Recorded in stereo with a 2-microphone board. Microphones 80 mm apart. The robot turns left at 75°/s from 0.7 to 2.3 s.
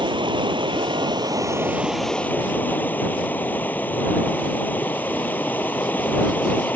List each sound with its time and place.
0.0 s running water: 80° right; by 6.8 s 160° left